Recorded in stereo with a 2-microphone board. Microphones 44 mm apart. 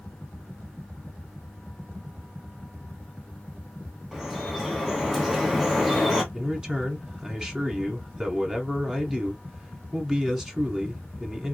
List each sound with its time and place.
4.1 s dripping: 5° right (ahead or behind), 1.5 m
6.3 s a man speaking: 15° right (ahead or behind), 1.2 m